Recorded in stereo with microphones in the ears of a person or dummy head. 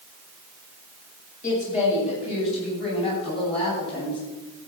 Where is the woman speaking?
50° left (ahead or behind), 7 m; by 4.2 s 40° left (ahead or behind), 10 m.